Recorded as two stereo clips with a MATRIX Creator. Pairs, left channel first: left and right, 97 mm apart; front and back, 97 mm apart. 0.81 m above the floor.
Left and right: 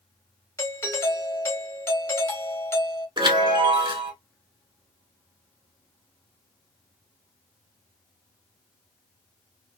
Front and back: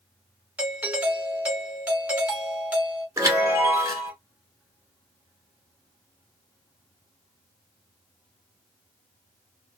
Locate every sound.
0.6 s a doorbell: 120° left, 1.1 m
3.2 s a chime: 125° right, 1.4 m